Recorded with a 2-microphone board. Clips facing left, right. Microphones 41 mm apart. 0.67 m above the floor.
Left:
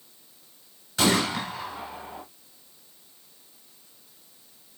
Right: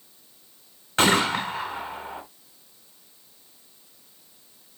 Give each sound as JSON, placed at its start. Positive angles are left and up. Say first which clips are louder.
{"t": 1.0, "sound": "a gunshot", "louder": "right 3 dB", "side_deg": -50, "distance_m": 3.5}